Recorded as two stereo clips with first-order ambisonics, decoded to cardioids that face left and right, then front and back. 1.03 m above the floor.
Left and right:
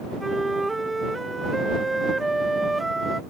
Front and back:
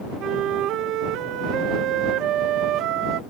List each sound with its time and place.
0.2 s a flute: 170° right